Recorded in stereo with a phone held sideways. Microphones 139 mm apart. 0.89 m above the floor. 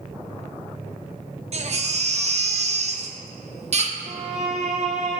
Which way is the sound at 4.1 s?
50° right (ahead or behind).